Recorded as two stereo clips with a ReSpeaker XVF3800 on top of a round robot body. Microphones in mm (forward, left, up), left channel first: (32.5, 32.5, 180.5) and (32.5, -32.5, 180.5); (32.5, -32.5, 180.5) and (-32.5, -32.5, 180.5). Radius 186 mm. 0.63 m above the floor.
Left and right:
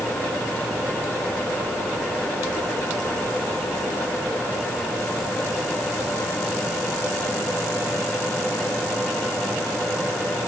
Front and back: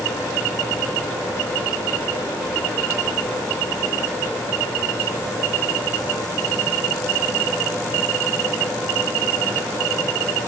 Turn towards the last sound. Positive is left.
No sound to turn to.